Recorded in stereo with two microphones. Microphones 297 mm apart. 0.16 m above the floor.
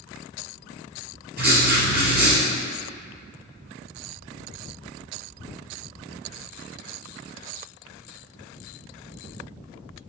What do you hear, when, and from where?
1.4 s writing: 35° right (ahead or behind), 2 m